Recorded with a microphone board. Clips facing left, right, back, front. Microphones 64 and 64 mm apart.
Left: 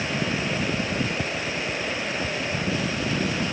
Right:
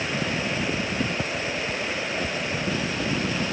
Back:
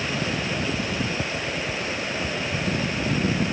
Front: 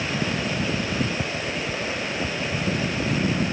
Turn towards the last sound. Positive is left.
No sound to turn to.